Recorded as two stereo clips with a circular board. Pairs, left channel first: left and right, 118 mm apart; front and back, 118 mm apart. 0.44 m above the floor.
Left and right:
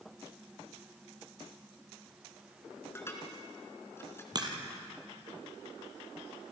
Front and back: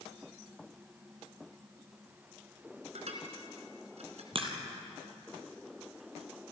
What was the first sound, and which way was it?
Dishes clattering, 160° left.